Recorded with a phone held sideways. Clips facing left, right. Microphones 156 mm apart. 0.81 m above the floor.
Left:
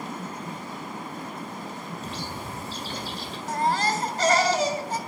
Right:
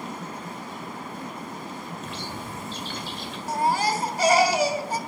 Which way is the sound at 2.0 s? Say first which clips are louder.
Even; 35° left (ahead or behind).